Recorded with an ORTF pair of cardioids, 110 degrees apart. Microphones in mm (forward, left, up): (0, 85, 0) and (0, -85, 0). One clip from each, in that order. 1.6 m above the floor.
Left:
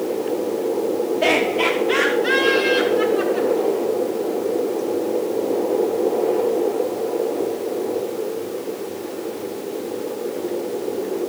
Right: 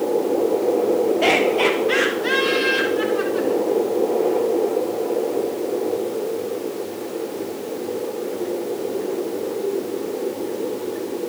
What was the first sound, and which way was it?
Laughter, 15° right.